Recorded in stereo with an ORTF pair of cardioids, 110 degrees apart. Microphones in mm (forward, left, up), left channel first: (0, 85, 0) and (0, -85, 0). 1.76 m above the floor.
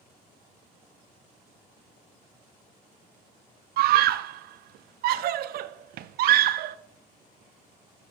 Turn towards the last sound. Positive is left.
turn(degrees=-65)